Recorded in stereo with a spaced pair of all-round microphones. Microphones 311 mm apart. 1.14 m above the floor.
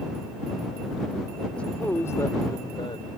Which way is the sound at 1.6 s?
5° left (ahead or behind).